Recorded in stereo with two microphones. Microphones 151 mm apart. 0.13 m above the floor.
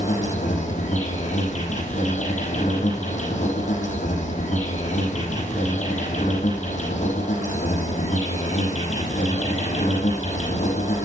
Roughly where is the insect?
Left.